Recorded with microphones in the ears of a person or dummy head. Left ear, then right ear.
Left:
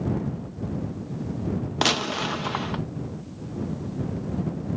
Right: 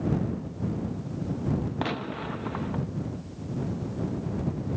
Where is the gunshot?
75° left (ahead or behind).